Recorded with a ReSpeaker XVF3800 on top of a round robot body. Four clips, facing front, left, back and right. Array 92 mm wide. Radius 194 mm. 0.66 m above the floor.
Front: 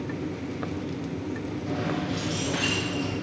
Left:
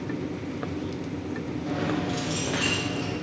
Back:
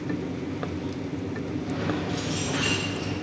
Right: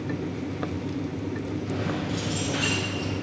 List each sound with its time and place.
1.7 s keys jangling: 85° left, 0.8 m; by 3.1 s 90° left, 2.5 m